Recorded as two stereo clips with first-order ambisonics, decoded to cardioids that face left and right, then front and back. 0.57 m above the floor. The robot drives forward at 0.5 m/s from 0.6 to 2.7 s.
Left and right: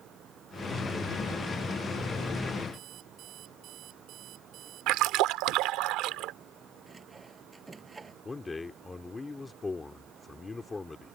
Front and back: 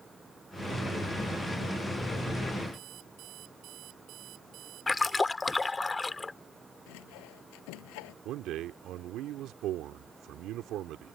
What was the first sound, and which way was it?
An alarm clock, 140° right.